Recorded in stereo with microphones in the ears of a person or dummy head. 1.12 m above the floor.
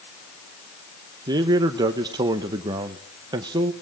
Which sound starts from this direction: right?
A man speaking, at 1.3 s.